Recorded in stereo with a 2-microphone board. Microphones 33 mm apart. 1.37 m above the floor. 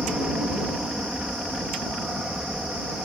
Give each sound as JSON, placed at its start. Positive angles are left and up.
{"t": 0.0, "sound": "an aircraft", "side_deg": -15}